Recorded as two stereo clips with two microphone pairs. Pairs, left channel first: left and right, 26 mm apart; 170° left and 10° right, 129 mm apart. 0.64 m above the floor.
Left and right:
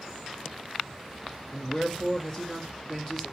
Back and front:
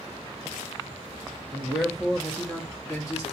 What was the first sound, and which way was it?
A man speaking, 70° left.